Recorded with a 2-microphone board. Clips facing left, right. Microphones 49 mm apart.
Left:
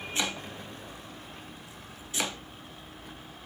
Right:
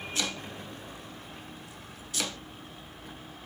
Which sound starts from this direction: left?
Chopping, at 0.1 s.